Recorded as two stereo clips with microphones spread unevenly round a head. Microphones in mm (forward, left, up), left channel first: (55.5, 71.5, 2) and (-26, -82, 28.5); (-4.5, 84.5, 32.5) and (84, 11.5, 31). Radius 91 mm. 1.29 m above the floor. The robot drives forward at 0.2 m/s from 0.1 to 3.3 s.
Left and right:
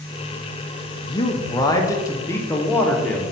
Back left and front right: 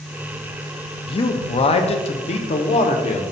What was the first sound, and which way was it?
A man speaking, 115° left.